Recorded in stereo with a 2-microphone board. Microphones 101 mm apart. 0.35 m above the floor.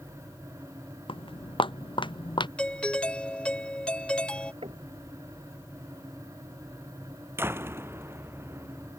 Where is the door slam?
25° right (ahead or behind).